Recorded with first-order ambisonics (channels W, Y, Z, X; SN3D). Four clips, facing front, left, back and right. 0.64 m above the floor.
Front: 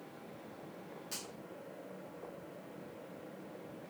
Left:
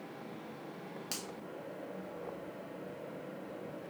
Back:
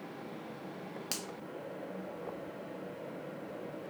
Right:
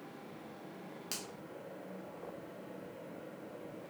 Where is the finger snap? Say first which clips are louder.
Left 1 dB, back 5 dB; 175° left, 0.7 m.